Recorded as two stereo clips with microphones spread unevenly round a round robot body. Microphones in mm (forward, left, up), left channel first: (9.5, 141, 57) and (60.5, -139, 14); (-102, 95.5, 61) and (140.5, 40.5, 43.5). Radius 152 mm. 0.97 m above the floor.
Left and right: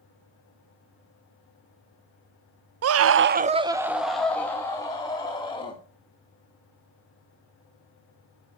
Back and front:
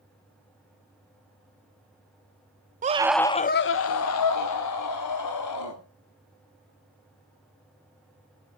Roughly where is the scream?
Ahead right.